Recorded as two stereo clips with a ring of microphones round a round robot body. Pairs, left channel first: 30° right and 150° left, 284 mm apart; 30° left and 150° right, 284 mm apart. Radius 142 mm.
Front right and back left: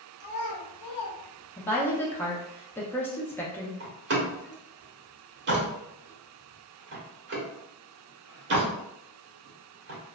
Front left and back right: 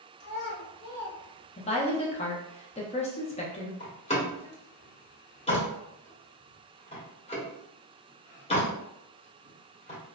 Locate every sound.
0.2 s a child speaking: 20° right, 1.1 m; by 1.9 s 135° right, 0.7 m
1.6 s a woman speaking: 40° left, 0.6 m
3.8 s a door slam: 100° left, 1.0 m